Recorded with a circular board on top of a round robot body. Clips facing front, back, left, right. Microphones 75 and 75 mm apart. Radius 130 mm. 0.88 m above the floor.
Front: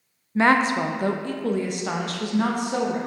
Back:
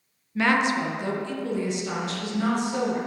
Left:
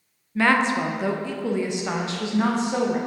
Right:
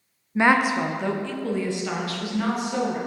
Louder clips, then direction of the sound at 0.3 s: Front 3 dB, right 1 dB; 40° right.